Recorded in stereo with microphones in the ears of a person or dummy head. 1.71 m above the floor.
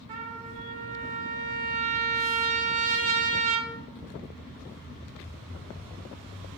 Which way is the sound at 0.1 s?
45° right (ahead or behind).